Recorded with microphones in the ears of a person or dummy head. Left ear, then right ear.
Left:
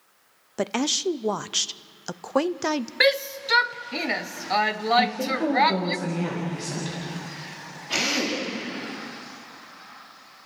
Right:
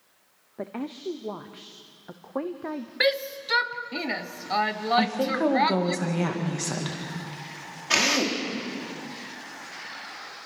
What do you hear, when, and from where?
0.6 s a woman speaking: 75° left (ahead or behind), 0.6 m
3.0 s a shout: 10° left (ahead or behind), 1.0 m
5.0 s a woman speaking: 40° right (ahead or behind), 2 m
7.9 s a drill: 55° right (ahead or behind), 3.5 m